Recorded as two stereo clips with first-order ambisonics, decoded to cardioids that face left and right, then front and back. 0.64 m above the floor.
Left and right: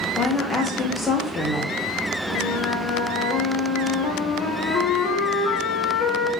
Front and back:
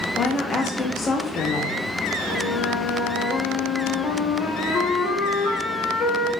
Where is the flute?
50° left, 0.8 m.